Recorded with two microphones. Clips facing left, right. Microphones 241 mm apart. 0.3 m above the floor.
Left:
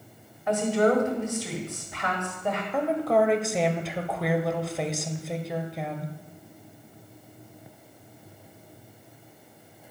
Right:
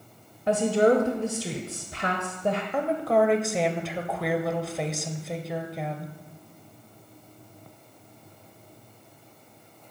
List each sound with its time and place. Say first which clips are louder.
0.5 s a woman speaking: right 2 dB; 30° right (ahead or behind), 1.1 m
2.7 s a woman speaking: left 2 dB; centre (ahead or behind), 0.9 m